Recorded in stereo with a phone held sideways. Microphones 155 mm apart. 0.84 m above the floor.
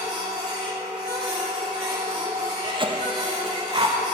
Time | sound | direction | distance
0.0 | a machine running | 30° right (ahead or behind) | 2 m
2.6 | a cough | 30° right (ahead or behind) | 0.7 m